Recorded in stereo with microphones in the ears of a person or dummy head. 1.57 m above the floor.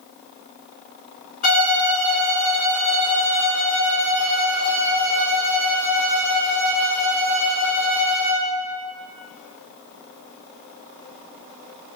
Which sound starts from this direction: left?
A violin, at 1.4 s.